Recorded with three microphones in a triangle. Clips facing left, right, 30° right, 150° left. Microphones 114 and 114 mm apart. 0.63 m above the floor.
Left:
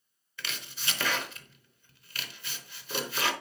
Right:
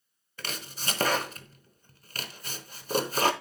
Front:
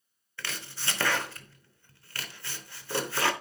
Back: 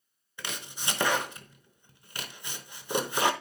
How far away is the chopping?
About 0.7 m.